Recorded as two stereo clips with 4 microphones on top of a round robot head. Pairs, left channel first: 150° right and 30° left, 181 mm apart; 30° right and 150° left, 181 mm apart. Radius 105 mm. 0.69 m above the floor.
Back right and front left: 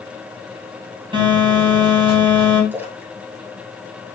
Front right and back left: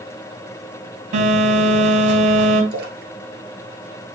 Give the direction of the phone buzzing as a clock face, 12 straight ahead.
9 o'clock.